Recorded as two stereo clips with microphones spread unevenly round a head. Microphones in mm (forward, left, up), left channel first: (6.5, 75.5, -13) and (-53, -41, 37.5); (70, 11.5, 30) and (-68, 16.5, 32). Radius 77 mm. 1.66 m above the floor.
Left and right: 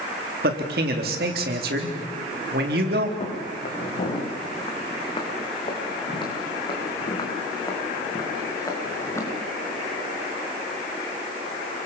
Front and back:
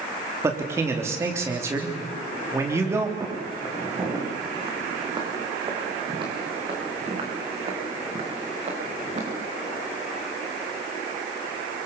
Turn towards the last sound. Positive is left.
turn(degrees=135)